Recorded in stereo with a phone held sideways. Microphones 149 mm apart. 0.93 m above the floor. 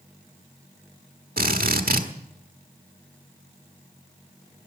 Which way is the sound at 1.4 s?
80° right.